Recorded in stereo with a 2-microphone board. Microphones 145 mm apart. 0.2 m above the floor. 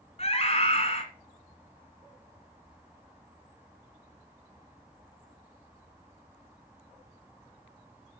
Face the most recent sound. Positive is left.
turn(degrees=45)  # may be behind; listen again after turning